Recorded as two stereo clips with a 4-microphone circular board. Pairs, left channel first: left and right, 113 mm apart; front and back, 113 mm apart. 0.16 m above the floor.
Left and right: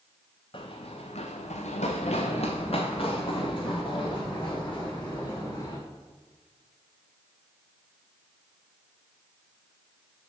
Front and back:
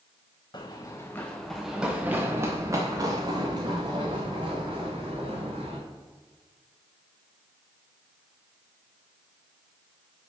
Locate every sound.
0.5 s running footsteps: 50° left, 0.9 m; by 5.8 s 145° left, 3 m